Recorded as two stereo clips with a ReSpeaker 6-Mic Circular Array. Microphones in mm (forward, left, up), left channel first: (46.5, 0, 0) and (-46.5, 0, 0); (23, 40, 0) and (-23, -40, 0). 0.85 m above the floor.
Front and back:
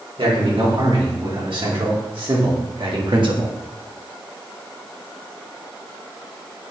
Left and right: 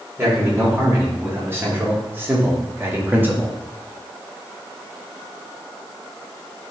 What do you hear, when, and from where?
0.2 s a man speaking: straight behind, 4 m; by 3.6 s 175° left, 1.5 m